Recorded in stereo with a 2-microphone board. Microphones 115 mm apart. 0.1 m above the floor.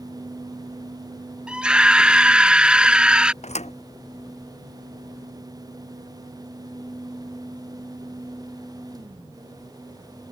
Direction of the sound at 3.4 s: 75° left (ahead or behind).